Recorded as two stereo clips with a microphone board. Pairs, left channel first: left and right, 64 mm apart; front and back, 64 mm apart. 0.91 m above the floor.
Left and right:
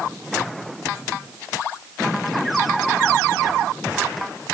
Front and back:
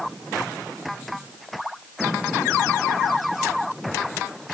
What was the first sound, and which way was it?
Only background noise.